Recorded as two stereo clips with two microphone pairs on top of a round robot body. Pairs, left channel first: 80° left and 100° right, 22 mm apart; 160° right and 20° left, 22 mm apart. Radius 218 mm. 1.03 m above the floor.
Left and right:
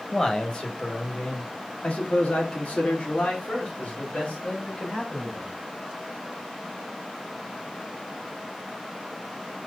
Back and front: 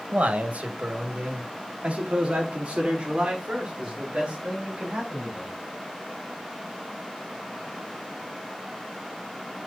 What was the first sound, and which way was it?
A man speaking, 15° left.